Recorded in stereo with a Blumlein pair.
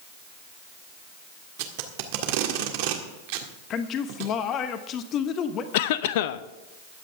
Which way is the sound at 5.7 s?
50° left.